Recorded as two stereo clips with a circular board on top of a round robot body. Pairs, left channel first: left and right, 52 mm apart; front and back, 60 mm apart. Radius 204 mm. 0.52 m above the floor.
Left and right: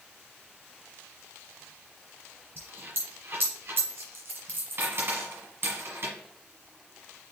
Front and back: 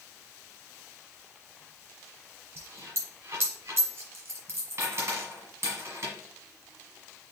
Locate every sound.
2.6 s a dropped coin: 135° right, 1.4 m